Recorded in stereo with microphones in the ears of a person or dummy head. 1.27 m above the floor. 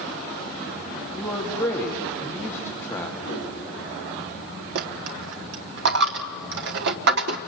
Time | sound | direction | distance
1.1 | a man speaking | 20° left (ahead or behind) | 2.5 m
3.2 | a whoosh | 65° left (ahead or behind) | 8.5 m
4.8 | a dropped coin | 55° right (ahead or behind) | 1.1 m